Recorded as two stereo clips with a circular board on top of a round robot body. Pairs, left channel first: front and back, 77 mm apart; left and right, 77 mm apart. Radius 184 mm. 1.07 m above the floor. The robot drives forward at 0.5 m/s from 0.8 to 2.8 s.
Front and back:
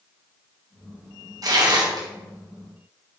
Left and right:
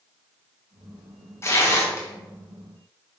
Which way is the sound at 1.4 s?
145° left.